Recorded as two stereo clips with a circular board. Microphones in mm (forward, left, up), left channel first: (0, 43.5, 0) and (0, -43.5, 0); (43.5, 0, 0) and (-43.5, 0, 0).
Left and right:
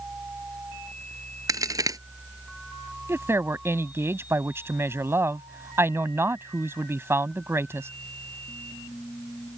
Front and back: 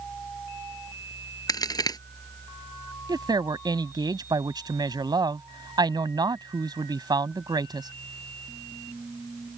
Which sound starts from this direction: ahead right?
A crack, at 1.5 s.